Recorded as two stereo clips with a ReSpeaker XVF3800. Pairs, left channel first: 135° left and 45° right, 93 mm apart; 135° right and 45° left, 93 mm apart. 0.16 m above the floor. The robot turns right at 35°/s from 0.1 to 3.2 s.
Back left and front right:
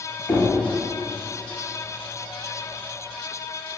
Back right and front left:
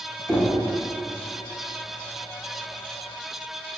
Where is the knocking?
165° left, 0.7 m; by 0.5 s 175° left, 0.7 m.